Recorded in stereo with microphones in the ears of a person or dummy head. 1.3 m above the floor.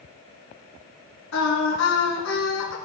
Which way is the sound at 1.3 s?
85° left.